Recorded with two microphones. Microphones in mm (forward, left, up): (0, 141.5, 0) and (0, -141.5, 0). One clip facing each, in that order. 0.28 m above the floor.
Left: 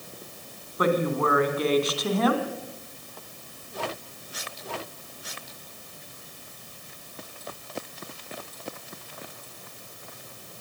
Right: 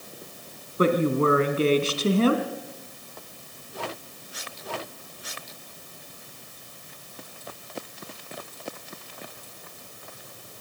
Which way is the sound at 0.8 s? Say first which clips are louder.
Right 3 dB; 30° right (ahead or behind).